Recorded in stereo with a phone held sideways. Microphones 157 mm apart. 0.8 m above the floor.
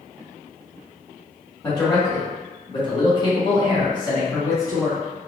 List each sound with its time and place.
1.6 s a man speaking: 25° left (ahead or behind), 1.5 m; by 5.3 s 15° left (ahead or behind), 1.1 m